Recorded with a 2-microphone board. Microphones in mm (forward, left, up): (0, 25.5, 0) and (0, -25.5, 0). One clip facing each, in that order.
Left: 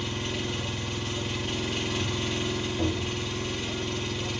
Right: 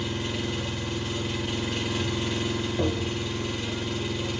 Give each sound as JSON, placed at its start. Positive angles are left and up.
{"t": 0.0, "sound": "an engine running", "side_deg": -5, "distance_m": 1.6}
{"t": 2.8, "sound": "tapping", "side_deg": -30, "distance_m": 0.9}